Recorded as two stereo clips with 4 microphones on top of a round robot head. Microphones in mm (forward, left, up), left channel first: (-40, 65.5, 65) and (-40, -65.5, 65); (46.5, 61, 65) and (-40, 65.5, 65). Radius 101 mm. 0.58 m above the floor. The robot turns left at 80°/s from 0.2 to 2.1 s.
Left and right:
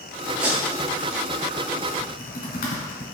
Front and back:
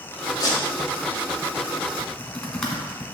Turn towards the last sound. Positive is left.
turn(degrees=80)